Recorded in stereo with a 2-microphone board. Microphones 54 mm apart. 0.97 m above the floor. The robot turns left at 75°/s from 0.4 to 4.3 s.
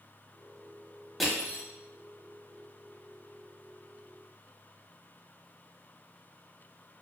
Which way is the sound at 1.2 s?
Centre (ahead or behind).